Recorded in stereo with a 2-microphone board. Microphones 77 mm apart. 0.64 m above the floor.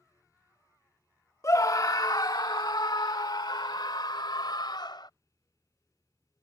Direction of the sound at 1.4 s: 45° left (ahead or behind).